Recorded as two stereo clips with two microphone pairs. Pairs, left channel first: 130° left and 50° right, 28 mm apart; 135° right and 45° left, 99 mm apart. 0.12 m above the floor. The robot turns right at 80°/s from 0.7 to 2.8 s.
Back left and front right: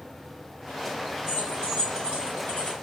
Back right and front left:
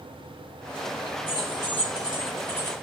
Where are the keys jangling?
65° left, 1.8 m; by 2.7 s straight behind, 1.8 m.